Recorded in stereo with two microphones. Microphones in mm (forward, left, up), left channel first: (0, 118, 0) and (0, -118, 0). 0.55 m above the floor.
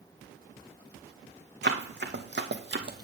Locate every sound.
1.6 s running footsteps: 50° right (ahead or behind), 1.8 m